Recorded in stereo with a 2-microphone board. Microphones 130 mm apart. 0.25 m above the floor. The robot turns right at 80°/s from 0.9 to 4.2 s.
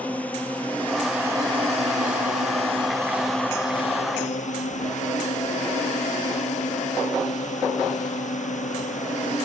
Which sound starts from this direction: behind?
A drone, at 0.0 s.